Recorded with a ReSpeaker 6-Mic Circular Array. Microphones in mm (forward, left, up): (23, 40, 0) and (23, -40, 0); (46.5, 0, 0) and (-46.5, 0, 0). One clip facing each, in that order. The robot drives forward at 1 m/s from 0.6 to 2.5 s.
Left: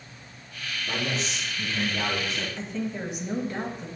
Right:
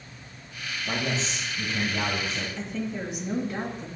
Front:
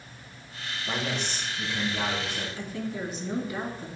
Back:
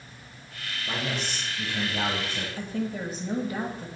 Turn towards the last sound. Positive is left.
turn(degrees=180)